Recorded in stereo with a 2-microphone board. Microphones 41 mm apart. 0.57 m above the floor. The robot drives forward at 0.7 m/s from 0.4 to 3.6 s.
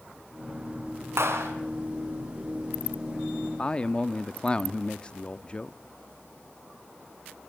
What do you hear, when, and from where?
1.2 s a clap: 80° right, 5 m; by 1.5 s 85° right, 5 m
3.6 s a man speaking: 20° left (ahead or behind), 0.6 m